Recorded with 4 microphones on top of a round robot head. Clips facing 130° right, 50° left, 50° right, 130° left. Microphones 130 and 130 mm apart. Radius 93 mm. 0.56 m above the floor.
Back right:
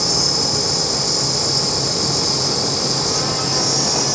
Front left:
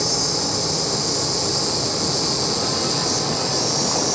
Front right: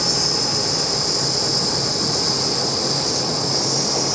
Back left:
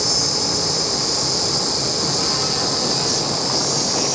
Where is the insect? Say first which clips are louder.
Back right 1 dB, even; 85° left, 1.5 m.